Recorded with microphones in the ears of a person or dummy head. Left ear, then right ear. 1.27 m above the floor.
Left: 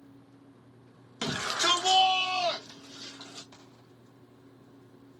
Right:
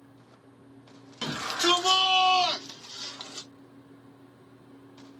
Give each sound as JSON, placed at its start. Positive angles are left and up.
{"t": 1.2, "sound": "a shout", "side_deg": 10, "distance_m": 1.5}